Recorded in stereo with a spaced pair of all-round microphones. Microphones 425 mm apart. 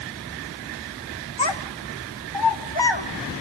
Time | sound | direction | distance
1.4 | a child speaking | 80° left | 1.7 m